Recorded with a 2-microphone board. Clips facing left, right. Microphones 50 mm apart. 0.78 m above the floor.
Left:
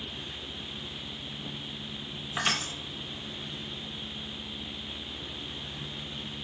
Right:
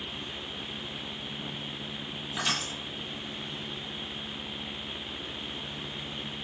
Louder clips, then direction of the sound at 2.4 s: Left 2 dB; 30° left (ahead or behind).